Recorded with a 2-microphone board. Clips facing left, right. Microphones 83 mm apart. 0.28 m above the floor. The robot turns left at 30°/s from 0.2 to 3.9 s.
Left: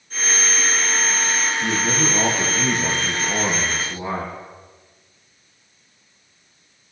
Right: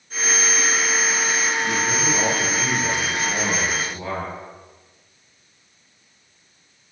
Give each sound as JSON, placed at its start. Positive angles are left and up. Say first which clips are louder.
{"t": 1.6, "sound": "a man speaking", "louder": "left 1 dB", "azimuth_deg": 90, "distance_m": 4.5}